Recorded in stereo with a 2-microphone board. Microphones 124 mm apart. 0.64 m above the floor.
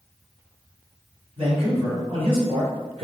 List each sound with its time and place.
1.4 s a man speaking: 55° right (ahead or behind), 2.5 m